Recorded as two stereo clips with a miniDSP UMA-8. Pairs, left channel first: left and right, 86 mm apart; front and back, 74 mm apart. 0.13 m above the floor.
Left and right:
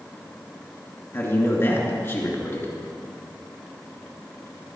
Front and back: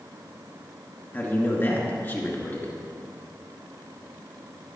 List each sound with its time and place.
1.1 s a man speaking: 45° left, 2 m